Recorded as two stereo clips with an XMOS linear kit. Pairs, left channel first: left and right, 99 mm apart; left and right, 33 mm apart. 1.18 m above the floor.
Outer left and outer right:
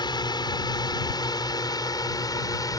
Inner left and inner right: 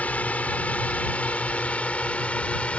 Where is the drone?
50° left (ahead or behind); by 2.8 s 40° left (ahead or behind).